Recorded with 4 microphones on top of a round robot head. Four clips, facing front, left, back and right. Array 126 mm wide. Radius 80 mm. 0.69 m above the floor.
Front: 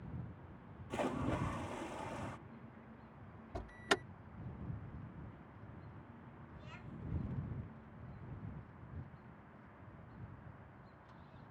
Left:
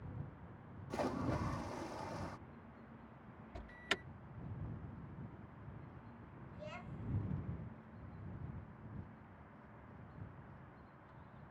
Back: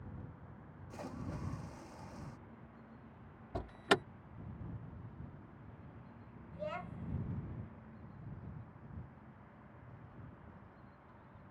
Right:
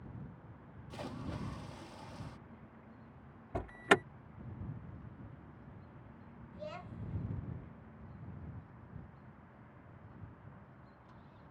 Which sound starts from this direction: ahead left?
A splash, at 0.9 s.